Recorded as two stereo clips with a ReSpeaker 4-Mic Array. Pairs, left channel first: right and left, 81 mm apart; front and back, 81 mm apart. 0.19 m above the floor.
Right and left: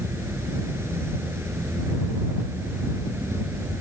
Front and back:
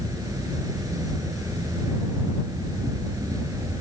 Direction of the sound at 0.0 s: 145° left.